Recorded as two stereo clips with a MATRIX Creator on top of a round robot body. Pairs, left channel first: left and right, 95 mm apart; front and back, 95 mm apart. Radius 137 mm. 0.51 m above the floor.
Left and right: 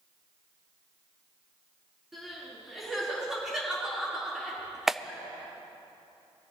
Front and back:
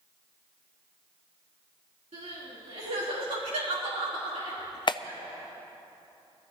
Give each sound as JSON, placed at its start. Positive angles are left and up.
{"t": 2.1, "sound": "crying", "azimuth_deg": -175, "distance_m": 4.0}
{"t": 4.9, "sound": "a clap", "azimuth_deg": -5, "distance_m": 0.6}